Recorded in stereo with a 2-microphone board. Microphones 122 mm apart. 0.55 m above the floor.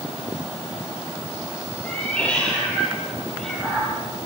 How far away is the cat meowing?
About 9.5 m.